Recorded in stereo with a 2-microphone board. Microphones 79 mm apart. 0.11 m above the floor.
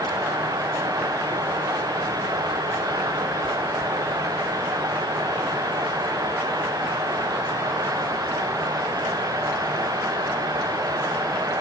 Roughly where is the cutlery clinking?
I don't hear cutlery clinking.